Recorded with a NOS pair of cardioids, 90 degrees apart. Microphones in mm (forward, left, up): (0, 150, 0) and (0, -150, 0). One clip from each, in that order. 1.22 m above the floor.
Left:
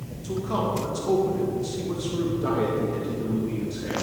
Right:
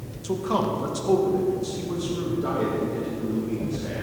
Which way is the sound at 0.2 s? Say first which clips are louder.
Right 2 dB; 35° right.